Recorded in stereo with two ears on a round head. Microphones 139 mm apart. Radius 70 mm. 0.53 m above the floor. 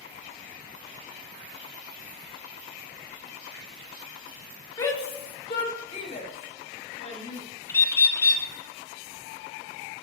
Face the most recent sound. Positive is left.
turn(degrees=15)  # may be behind; listen again after turning